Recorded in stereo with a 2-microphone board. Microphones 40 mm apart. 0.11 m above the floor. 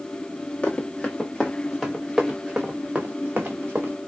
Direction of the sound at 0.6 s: 25° left (ahead or behind).